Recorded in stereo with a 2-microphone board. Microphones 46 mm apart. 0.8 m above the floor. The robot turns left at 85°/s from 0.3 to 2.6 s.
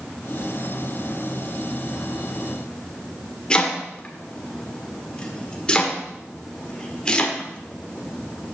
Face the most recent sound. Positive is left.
turn(degrees=20)  # may be behind; listen again after turning